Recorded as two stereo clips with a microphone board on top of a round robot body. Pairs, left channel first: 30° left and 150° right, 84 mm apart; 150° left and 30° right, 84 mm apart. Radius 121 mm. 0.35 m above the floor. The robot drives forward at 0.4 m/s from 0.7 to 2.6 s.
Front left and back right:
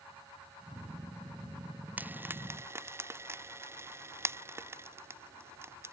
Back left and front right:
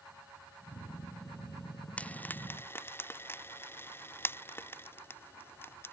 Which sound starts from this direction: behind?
Frying, at 2.0 s.